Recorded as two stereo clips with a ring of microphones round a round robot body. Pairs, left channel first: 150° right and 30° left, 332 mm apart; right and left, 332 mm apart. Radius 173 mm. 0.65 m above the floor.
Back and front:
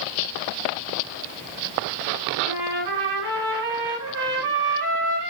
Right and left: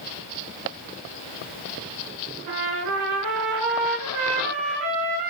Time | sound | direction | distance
2.5 | a trumpet | 65° left | 5 m